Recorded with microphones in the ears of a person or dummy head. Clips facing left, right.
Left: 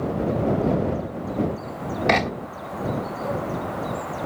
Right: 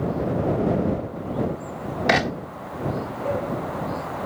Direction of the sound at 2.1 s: 5° right (ahead or behind).